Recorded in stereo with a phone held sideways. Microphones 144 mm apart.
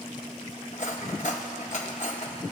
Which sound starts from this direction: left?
Cutlery clinking, at 0.7 s.